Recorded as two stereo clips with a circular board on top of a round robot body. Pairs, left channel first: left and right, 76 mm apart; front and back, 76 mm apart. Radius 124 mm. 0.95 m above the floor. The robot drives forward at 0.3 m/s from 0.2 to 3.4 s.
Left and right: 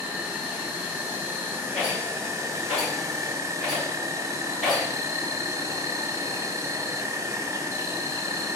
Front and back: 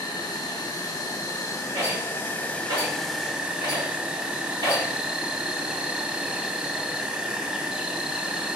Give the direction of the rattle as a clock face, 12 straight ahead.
6 o'clock.